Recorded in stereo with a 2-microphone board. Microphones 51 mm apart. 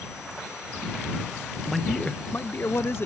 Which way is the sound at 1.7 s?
Centre (ahead or behind).